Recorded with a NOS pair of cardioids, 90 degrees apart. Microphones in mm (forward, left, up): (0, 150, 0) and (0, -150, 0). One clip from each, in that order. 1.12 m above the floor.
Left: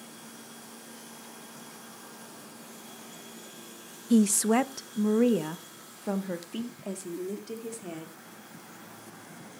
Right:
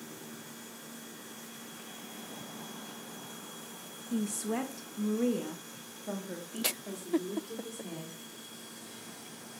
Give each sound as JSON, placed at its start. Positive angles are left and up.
{"t": 4.1, "sound": "a woman speaking", "azimuth_deg": 60, "distance_m": 0.6}